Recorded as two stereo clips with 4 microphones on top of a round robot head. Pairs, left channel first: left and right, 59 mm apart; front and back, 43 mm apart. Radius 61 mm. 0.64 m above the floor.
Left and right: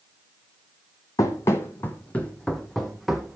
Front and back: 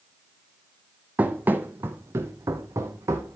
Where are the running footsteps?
125° left, 1.4 m; by 3.4 s 175° right, 1.8 m.